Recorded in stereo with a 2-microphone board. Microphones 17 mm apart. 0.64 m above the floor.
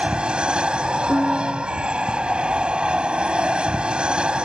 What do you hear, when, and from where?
0.0 s an aircraft: 70° right (ahead or behind)
1.1 s a piano: 50° left (ahead or behind)